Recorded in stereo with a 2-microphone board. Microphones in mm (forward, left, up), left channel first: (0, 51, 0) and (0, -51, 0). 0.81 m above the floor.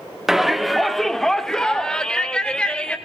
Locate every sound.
0.3 s a shout: 5° right (ahead or behind), 1.4 m; by 3.0 s 10° left (ahead or behind), 3 m